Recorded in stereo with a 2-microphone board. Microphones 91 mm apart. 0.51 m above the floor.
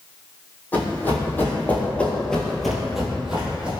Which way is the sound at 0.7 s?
20° left (ahead or behind).